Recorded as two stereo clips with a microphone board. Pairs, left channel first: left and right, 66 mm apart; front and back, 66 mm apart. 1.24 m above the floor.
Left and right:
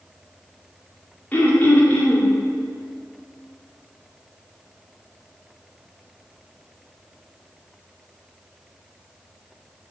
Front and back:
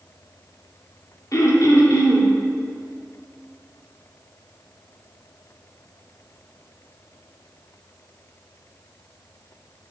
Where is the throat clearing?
25° left, 1.8 m.